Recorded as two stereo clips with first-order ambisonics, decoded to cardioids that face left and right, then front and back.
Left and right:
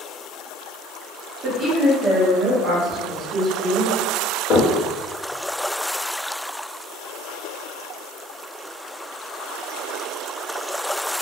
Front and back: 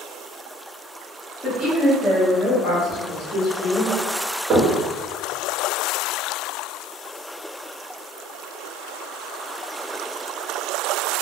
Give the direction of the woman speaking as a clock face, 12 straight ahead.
2 o'clock.